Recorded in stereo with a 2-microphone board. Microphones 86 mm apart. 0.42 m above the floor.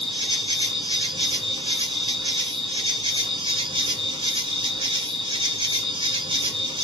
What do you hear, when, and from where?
0.0 s an insect: 75° right (ahead or behind), 1.1 m